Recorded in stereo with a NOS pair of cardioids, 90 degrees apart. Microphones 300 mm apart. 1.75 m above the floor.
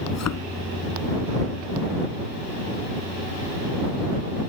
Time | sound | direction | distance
0.1 | a thud | 60° left | ?